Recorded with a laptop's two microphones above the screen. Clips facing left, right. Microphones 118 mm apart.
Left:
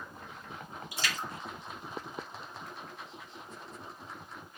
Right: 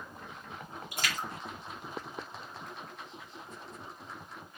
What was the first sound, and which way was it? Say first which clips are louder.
A splash: right 1 dB; 50° right (ahead or behind).